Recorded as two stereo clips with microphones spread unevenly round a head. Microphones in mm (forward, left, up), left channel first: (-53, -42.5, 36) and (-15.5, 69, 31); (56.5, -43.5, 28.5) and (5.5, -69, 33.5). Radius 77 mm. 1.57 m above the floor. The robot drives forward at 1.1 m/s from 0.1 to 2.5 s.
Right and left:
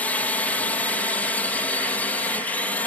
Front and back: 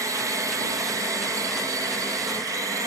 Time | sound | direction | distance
0.0 | a drone | 175° left | ?